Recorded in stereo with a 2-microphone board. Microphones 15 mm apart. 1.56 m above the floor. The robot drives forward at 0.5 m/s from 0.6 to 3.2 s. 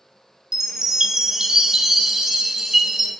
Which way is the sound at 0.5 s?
35° right (ahead or behind).